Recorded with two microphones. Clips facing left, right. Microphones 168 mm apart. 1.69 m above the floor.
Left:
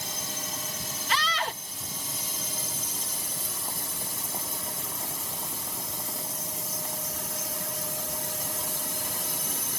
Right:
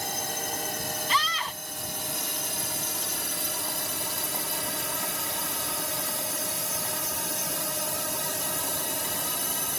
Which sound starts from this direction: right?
A drone, at 0.0 s.